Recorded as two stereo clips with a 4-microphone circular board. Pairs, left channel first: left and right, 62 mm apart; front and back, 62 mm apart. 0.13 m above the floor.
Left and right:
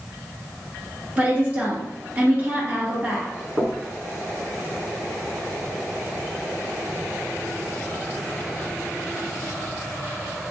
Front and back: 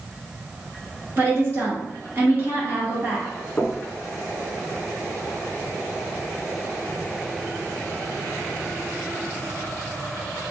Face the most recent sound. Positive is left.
turn(degrees=-60)